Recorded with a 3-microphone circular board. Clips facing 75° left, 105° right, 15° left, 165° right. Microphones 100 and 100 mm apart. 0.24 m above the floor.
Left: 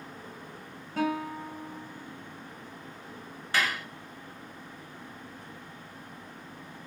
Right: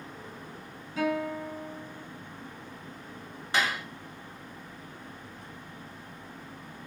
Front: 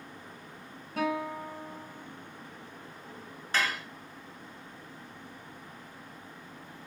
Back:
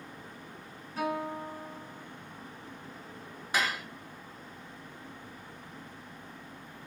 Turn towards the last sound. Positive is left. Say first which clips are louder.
# right 1 dB, even
turn(degrees=-115)